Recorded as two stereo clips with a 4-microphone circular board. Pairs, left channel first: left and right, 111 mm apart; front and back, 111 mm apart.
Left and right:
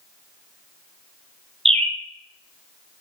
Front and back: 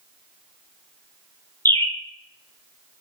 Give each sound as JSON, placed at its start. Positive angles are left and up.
{"t": 1.6, "sound": "a bird", "azimuth_deg": -70, "distance_m": 0.7}